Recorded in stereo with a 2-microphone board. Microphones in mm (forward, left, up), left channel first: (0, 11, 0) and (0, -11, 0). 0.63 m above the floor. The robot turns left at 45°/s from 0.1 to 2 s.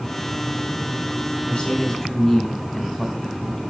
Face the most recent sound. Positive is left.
turn(degrees=30)  # may be behind; listen again after turning